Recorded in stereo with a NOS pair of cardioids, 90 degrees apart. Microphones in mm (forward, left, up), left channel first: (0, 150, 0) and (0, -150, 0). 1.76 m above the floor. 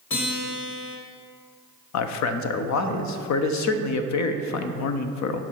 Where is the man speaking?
65° left, 0.7 m.